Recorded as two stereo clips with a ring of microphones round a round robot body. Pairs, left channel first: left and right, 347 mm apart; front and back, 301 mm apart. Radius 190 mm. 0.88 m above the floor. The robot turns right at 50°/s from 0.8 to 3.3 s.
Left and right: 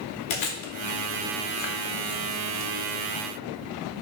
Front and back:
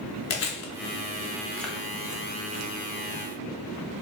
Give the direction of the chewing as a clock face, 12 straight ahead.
10 o'clock.